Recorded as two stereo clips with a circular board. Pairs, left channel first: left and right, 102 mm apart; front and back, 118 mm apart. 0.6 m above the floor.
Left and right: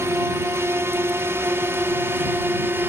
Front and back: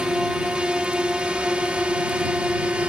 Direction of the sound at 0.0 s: 105° right.